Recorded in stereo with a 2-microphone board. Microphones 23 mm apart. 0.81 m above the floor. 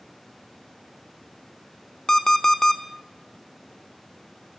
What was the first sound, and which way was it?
An alarm clock, 20° left (ahead or behind).